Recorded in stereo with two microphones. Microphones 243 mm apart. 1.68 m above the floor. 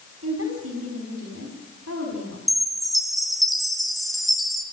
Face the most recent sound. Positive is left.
turn(degrees=0)  # may be behind; listen again after turning